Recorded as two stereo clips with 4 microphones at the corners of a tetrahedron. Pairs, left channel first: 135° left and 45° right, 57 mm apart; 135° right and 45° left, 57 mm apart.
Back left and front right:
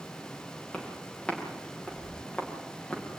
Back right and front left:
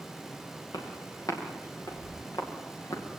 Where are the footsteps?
150° right, 9.5 m; by 3.1 s 145° right, 8 m.